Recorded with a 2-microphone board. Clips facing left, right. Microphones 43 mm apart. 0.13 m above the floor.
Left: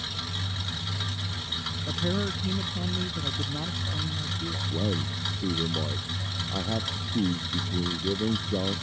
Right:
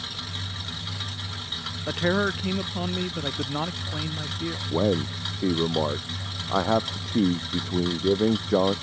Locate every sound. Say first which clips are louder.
1.9 s a man speaking: right 7 dB; 50° right (ahead or behind)
4.7 s a man speaking: right 8 dB; 70° right (ahead or behind)